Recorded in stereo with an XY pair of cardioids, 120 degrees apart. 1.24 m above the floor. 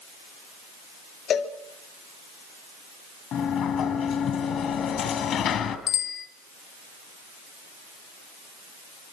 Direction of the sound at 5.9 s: 65° left.